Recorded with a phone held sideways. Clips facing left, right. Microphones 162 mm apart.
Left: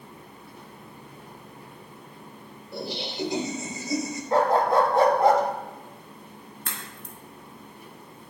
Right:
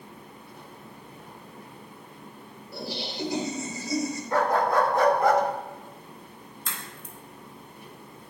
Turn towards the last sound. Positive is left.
turn(degrees=60)  # may be behind; listen again after turning